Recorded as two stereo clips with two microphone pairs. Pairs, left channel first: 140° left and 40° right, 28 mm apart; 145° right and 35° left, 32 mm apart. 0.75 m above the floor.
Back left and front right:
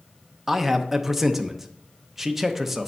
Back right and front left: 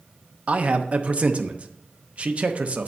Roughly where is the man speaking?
Ahead left.